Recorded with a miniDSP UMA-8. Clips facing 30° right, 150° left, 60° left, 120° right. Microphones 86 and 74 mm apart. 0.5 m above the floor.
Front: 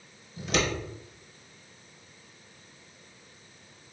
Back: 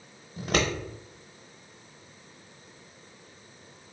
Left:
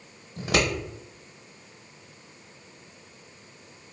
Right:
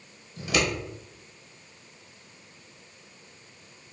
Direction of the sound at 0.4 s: 110° left.